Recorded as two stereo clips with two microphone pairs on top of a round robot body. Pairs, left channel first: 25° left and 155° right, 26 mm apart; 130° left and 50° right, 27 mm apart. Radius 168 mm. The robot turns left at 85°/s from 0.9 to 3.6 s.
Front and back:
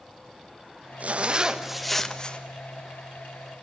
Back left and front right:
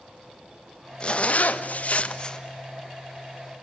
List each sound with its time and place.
1.0 s a zipper: 175° right, 1.5 m; by 2.4 s 65° left, 1.5 m